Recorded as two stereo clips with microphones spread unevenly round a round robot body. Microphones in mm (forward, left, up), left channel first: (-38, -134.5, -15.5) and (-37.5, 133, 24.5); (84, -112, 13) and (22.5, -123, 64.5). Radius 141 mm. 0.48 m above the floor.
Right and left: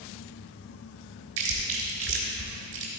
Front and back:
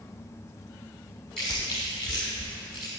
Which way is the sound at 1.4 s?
80° left.